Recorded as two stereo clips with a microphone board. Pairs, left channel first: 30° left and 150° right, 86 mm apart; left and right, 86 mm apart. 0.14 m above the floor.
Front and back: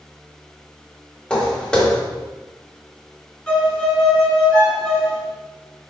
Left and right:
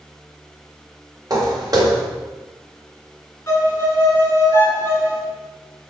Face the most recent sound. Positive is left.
turn(degrees=90)